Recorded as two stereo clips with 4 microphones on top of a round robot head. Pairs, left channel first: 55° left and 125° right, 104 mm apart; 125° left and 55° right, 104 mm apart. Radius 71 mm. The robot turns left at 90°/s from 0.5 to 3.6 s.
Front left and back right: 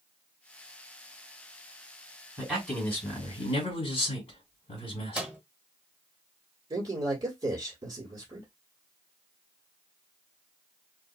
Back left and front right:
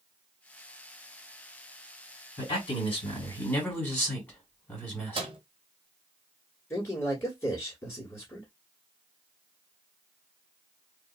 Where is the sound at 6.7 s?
175° right, 1.6 m.